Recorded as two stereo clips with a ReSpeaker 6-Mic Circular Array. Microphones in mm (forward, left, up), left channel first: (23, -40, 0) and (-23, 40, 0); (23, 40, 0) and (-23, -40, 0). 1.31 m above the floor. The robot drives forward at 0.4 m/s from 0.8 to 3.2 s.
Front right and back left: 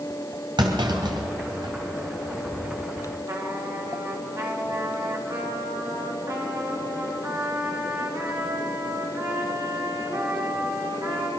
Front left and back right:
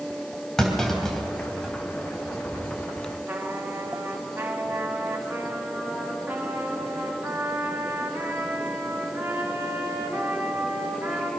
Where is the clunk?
140° left, 3 m; by 1.7 s 145° left, 3.5 m.